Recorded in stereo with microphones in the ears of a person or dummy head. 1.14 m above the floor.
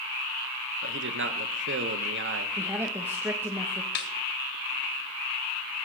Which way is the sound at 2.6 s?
20° right (ahead or behind).